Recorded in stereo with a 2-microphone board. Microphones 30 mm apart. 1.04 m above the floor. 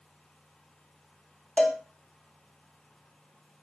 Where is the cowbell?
35° left (ahead or behind), 2.5 m.